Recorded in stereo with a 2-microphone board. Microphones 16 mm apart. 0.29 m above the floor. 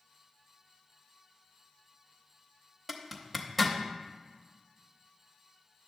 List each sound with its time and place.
2.9 s a zipper: centre (ahead or behind), 0.7 m